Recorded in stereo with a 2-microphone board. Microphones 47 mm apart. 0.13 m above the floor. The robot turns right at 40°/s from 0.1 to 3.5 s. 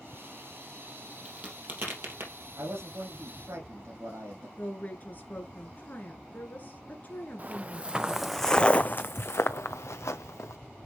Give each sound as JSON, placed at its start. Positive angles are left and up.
{"t": 1.2, "sound": "a crack", "side_deg": -25, "distance_m": 3.0}
{"t": 2.6, "sound": "a man speaking", "azimuth_deg": -115, "distance_m": 6.0}
{"t": 4.6, "sound": "a woman speaking", "side_deg": 40, "distance_m": 2.0}
{"t": 7.4, "sound": "footsteps", "side_deg": -40, "distance_m": 0.9}